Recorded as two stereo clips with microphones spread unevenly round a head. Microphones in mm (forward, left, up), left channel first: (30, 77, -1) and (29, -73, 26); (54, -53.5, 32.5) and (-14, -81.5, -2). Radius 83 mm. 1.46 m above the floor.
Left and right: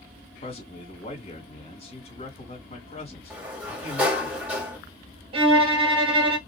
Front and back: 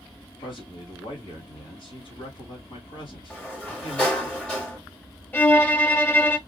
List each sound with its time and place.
0.4 s a man speaking: 40° left, 2 m
3.3 s a sliding door: 20° right, 1.5 m
5.3 s a violin: 35° right, 1.0 m